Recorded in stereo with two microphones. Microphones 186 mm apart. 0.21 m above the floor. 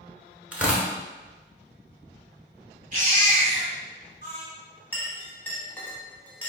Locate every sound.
0.5 s tearing paper: 5° right (ahead or behind), 0.7 m
2.9 s a baby crying: 40° right (ahead or behind), 0.8 m
4.9 s a clink: 10° left (ahead or behind), 0.6 m